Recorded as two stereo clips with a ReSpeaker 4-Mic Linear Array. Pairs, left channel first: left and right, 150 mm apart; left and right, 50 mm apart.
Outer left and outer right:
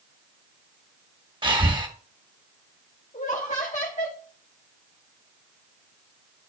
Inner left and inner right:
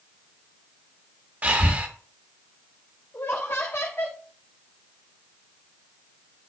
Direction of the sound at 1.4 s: 35° right (ahead or behind).